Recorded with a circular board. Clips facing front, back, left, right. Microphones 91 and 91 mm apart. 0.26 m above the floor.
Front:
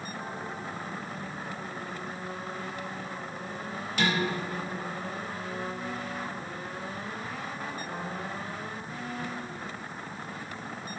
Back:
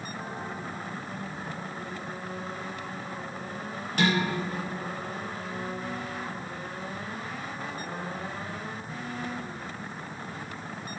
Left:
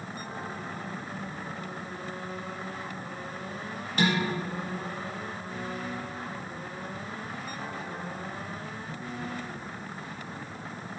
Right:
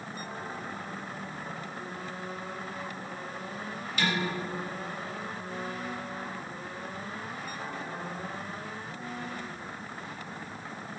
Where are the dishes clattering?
140° left, 4 m.